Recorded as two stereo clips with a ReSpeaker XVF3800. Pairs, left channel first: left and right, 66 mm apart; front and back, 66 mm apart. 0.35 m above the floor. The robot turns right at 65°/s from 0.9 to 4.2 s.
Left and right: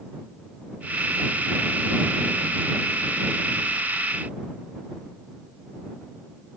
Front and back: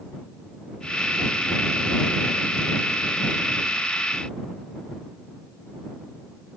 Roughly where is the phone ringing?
I don't hear a phone ringing.